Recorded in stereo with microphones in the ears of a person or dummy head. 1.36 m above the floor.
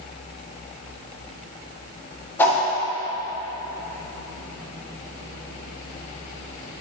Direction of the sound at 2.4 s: 10° left (ahead or behind).